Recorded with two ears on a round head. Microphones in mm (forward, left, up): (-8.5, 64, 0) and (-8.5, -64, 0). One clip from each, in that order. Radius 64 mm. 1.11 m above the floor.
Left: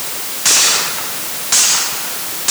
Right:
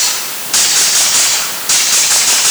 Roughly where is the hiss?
No hiss in this recording.